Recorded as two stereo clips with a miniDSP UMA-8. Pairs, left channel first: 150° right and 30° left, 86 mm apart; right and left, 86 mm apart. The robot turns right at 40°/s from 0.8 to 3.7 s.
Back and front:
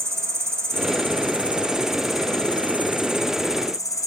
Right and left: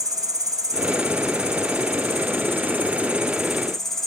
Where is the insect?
70° left, 1.6 m; by 4.1 s 175° right, 1.6 m.